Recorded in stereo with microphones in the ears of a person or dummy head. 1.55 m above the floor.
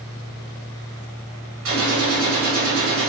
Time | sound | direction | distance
1.6 | a gunshot | 80° right | 1.9 m